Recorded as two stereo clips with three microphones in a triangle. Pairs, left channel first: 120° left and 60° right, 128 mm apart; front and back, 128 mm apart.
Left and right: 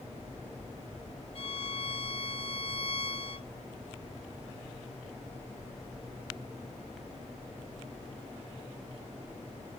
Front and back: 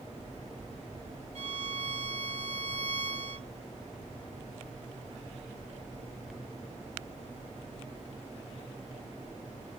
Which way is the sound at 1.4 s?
155° left.